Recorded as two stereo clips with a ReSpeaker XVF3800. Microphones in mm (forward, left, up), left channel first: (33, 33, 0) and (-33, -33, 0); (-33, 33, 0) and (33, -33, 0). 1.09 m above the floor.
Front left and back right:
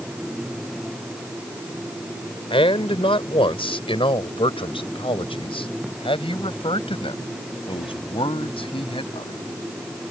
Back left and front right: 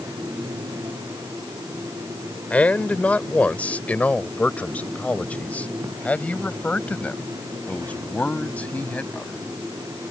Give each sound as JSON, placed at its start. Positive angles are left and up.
{"t": 2.5, "sound": "a man speaking", "azimuth_deg": 60}